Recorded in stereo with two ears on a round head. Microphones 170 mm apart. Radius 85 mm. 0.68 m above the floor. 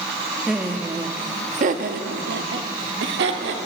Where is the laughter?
Centre (ahead or behind), 0.9 m; by 3.6 s 65° right (ahead or behind), 1.8 m.